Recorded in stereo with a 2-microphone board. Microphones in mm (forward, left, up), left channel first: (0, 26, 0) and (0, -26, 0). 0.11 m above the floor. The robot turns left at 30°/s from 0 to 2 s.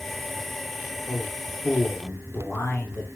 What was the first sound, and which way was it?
A man speaking, 65° left (ahead or behind).